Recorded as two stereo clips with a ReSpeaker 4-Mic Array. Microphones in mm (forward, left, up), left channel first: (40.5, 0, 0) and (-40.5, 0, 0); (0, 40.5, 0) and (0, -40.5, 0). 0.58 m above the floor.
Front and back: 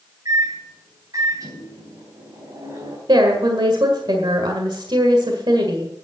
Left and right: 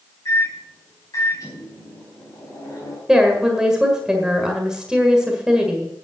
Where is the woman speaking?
170° right, 1.7 m.